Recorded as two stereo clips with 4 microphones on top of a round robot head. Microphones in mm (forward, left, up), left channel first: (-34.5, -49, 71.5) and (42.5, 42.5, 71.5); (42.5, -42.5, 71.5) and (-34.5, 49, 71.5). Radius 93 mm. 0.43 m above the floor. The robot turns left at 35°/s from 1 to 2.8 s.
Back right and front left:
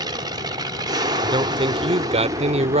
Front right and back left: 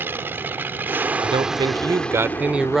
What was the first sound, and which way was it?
An aircraft, 70° left.